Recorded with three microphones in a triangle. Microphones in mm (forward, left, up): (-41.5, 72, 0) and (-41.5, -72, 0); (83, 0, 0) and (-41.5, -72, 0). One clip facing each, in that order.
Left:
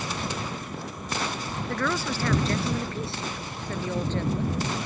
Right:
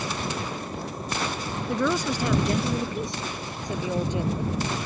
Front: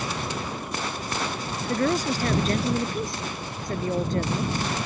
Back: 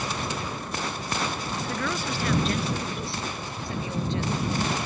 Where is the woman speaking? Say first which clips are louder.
Right 4 dB, front 9 dB; 15° right; by 4.5 s 10° right.